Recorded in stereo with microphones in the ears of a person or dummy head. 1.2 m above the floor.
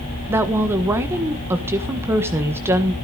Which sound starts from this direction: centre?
A woman speaking, at 0.3 s.